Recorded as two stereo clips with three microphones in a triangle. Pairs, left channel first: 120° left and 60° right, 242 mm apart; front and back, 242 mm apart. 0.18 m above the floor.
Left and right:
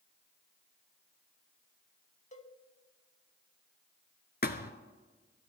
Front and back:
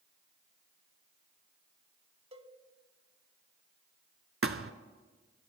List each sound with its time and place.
2.3 s a cowbell: 145° left, 0.7 m
4.4 s a thud: 160° left, 0.6 m